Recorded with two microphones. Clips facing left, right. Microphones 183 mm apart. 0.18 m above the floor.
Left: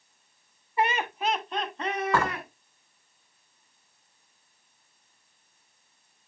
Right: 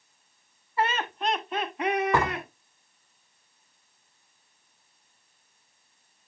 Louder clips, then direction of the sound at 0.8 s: Left 1 dB; 20° left (ahead or behind).